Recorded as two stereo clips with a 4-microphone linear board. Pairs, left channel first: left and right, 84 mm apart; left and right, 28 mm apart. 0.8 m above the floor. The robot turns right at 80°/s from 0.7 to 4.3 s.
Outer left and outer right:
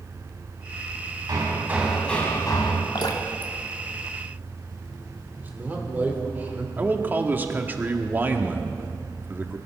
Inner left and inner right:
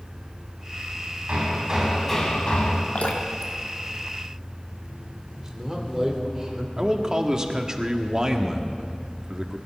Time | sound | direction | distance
1.3 | hammering | 55° right | 3 m
3.0 | dripping | 60° left (ahead or behind) | 1.5 m
5.4 | a man speaking | 20° right (ahead or behind) | 2.5 m
6.8 | a man speaking | 25° right (ahead or behind) | 1.4 m